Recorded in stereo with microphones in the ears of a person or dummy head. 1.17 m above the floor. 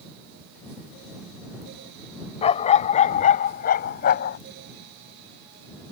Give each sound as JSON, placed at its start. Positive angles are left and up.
{"t": 2.4, "sound": "a dog barking", "side_deg": 30}